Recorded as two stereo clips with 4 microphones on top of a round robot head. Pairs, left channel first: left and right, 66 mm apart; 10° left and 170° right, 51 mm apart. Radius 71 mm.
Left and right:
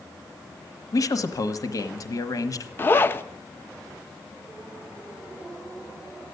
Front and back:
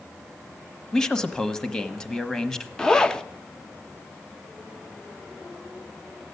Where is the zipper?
75° left, 0.7 m.